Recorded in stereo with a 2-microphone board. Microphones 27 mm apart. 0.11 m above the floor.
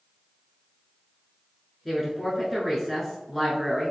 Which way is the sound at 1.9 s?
5° right (ahead or behind).